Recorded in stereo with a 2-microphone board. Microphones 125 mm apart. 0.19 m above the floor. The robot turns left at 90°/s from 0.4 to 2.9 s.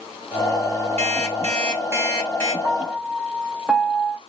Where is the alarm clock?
75° right, 2 m; by 2.5 s 145° left, 2 m.